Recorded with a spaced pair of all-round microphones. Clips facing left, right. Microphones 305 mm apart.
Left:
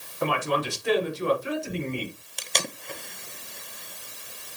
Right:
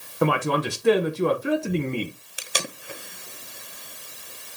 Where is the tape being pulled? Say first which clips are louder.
Even; 5° right (ahead or behind), 0.7 m.